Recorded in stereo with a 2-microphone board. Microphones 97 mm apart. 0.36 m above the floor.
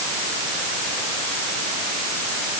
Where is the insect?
No insect in this recording.